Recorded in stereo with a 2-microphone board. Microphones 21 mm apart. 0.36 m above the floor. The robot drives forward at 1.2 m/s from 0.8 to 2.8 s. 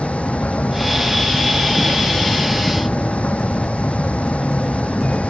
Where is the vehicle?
85° left.